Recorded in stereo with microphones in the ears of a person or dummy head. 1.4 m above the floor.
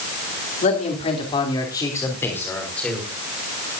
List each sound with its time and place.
0.6 s a man speaking: 40° left (ahead or behind), 3 m; by 3.0 s 5° left (ahead or behind), 4.5 m